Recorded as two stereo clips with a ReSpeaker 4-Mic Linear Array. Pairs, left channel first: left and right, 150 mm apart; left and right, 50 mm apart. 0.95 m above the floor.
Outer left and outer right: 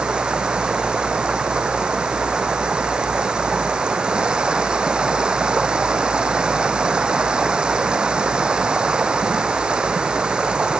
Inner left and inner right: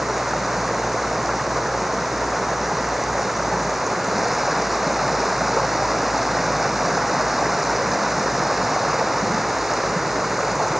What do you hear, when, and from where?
0.0 s running water: 5° right (ahead or behind)